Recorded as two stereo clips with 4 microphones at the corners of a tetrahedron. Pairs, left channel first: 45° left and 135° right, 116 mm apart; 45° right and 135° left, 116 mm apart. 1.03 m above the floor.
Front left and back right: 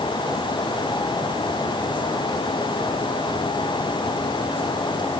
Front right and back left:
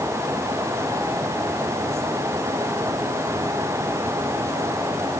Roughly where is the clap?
No clap in this recording.